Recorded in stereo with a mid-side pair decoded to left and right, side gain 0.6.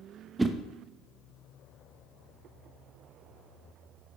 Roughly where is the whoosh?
Ahead.